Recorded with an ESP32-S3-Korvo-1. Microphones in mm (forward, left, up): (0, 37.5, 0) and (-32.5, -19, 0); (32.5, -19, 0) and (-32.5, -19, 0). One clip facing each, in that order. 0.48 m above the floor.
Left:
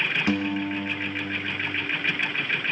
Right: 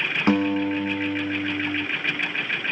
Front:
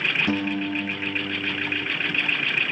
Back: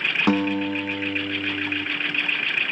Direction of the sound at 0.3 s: 170° right.